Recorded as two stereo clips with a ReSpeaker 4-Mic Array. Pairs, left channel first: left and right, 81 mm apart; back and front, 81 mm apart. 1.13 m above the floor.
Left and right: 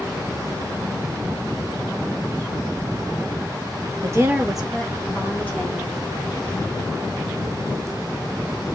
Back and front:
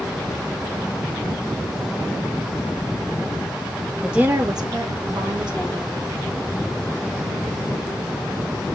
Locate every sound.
4.0 s a woman speaking: 90° right, 0.5 m; by 5.9 s 20° left, 2.0 m